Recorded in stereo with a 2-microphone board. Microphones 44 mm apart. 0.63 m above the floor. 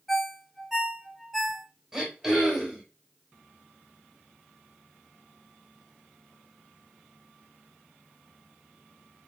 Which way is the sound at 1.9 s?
10° right (ahead or behind).